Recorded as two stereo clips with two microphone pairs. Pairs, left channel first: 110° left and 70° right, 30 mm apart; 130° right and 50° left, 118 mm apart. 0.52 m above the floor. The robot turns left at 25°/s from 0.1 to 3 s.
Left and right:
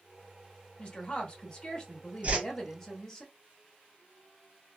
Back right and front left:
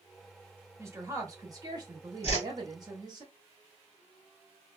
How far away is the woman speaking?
About 1.1 m.